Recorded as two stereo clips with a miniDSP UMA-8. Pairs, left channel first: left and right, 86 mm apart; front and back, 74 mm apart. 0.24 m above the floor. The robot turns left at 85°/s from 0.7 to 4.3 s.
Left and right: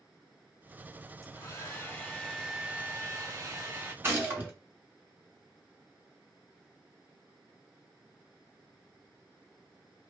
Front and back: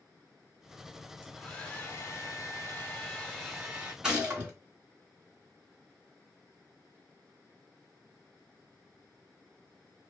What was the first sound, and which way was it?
A hair dryer, 100° left.